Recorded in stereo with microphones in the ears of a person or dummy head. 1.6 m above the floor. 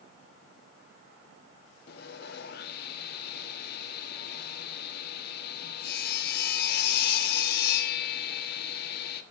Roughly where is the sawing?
Left.